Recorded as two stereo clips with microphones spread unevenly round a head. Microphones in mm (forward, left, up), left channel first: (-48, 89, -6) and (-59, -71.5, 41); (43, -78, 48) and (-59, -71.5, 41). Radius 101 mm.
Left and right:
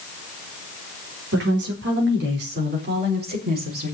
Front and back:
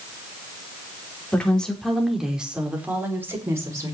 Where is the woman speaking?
80° right, 4.5 m; by 4.0 s 125° right, 5.5 m.